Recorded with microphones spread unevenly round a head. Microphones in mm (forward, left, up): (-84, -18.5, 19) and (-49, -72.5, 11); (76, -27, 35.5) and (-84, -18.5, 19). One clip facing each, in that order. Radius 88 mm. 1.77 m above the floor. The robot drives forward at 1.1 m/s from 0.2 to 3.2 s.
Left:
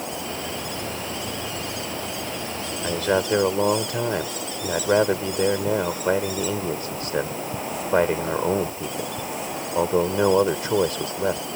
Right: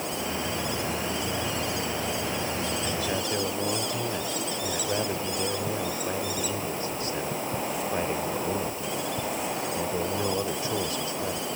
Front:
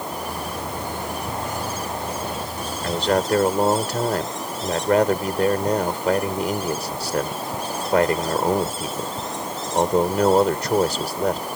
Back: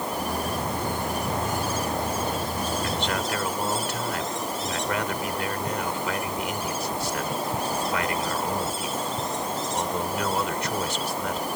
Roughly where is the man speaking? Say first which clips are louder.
Left 7 dB, front 7 dB; ahead left.